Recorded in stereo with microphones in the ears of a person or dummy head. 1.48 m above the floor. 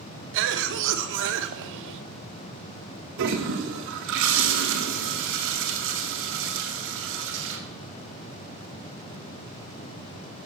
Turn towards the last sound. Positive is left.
turn(degrees=-65)  # may be behind; listen again after turning